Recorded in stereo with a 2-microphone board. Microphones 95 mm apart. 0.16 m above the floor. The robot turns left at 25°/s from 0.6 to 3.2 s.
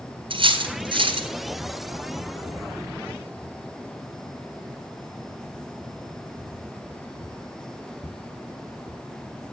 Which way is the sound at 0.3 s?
65° right (ahead or behind).